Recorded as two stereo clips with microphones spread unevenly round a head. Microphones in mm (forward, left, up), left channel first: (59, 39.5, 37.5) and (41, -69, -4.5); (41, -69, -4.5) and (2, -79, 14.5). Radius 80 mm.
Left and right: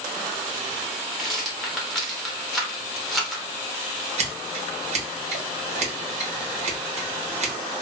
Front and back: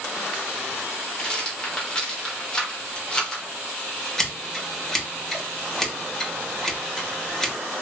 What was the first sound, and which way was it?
A rattle, 25° right.